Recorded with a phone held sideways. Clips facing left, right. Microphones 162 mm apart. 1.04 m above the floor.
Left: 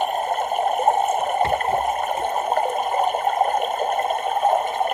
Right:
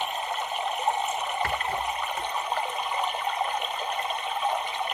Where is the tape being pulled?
No tape being pulled in this recording.